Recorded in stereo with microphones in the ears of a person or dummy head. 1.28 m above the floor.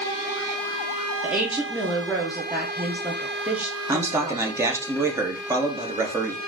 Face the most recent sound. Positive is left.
turn(degrees=-25)  # may be behind; listen again after turning